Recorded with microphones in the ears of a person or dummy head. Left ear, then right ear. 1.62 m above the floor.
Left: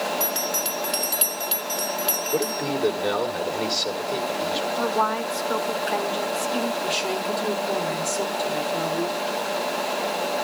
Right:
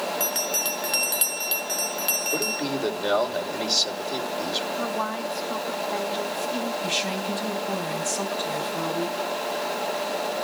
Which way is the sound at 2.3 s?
50° right (ahead or behind).